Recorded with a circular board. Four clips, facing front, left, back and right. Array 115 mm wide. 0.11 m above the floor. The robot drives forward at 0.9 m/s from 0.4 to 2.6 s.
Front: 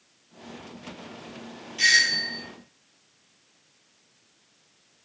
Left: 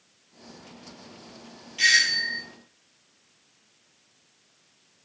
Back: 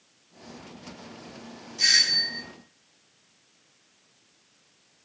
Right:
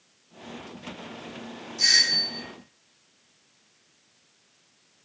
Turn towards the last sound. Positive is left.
turn(degrees=75)